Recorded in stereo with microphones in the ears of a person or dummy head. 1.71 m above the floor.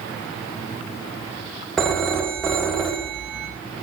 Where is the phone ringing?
5° left (ahead or behind), 0.7 m.